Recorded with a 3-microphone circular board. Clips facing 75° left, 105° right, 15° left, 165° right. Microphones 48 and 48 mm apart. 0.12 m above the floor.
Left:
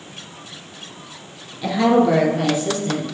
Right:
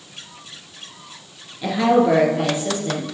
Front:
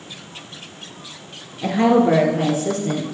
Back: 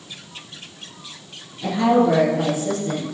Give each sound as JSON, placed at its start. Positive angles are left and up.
{"t": 1.6, "sound": "a woman speaking", "azimuth_deg": -25, "distance_m": 1.6}